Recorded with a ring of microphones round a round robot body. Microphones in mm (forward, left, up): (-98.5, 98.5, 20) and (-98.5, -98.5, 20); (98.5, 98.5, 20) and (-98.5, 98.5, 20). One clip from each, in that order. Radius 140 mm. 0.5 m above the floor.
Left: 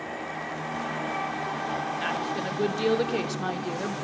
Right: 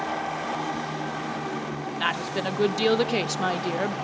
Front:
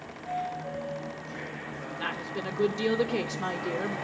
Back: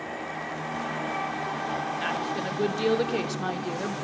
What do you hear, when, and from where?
2.0 s a woman speaking: 105° right, 0.8 m